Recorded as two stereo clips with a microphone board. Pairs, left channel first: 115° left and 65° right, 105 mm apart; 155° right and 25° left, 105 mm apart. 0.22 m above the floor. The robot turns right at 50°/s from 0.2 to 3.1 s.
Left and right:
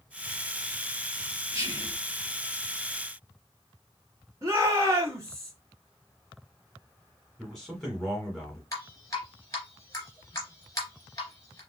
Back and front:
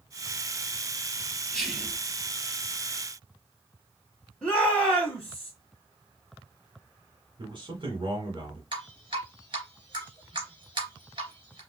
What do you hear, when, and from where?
1.5 s whispering: 75° right, 1.2 m; by 2.0 s 50° right, 1.2 m
4.4 s a shout: 85° right, 1.2 m
7.4 s a man speaking: 30° left, 1.6 m
8.7 s dripping: 60° left, 2.5 m